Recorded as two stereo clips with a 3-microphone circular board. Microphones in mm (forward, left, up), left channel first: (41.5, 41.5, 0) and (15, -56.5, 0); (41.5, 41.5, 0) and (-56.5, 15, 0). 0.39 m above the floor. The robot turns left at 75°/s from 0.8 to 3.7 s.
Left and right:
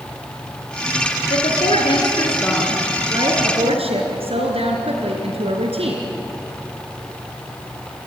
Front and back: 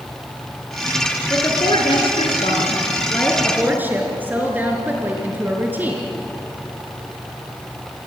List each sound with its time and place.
1.3 s a woman speaking: 85° left, 5 m; by 6.0 s 95° right, 5 m